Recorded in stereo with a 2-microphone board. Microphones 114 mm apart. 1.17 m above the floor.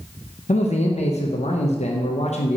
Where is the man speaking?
75° left (ahead or behind), 0.8 m.